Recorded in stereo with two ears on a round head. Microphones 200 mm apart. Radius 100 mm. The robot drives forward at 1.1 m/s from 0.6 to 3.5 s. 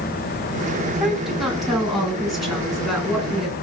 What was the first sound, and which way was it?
A woman speaking, centre (ahead or behind).